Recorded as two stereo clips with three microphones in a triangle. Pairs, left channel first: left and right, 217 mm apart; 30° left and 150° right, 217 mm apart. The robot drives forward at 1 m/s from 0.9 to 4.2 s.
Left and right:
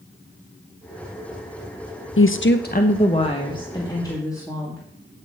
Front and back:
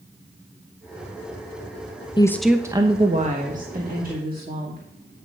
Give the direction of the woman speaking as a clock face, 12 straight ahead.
9 o'clock.